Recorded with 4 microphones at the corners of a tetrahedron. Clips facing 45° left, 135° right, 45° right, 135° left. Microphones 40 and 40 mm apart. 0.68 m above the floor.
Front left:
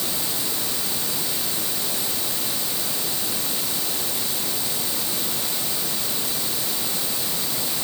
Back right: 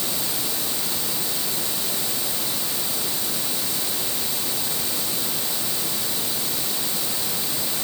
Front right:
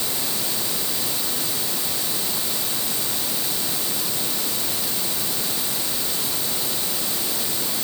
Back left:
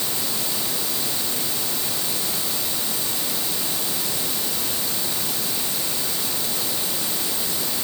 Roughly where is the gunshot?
No gunshot in this recording.